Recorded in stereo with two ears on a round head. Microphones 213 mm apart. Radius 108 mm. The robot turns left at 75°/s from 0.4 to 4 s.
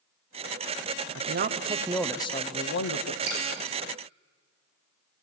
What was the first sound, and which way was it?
A man speaking, 115° right.